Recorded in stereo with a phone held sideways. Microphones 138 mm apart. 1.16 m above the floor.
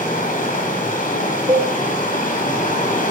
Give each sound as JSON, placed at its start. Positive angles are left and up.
{"t": 0.0, "sound": "running water", "side_deg": 75, "distance_m": 5.5}
{"t": 1.5, "sound": "a cowbell", "side_deg": -35, "distance_m": 3.5}